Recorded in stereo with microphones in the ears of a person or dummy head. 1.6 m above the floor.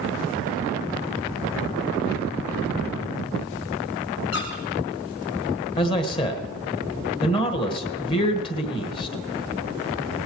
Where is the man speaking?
25° left (ahead or behind), 1.6 m.